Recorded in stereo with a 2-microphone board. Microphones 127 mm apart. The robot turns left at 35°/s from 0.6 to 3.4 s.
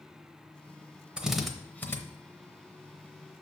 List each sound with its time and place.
1.2 s a drill: 10° right (ahead or behind), 0.8 m; by 2.0 s 20° left (ahead or behind), 0.8 m